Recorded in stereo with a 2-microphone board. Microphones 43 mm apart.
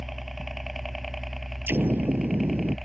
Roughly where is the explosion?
Right.